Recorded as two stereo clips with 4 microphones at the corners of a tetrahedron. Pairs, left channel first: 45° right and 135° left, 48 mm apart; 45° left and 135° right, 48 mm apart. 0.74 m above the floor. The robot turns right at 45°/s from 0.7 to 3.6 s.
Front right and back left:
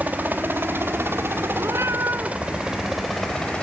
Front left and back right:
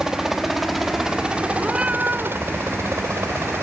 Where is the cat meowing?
145° left; by 2.4 s 175° right.